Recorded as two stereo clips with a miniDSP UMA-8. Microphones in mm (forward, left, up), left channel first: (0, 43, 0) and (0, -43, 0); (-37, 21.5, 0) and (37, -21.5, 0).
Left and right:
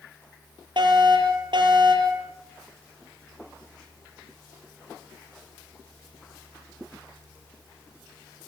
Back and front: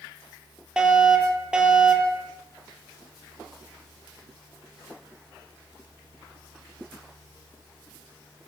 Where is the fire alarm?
110° right, 6.5 m.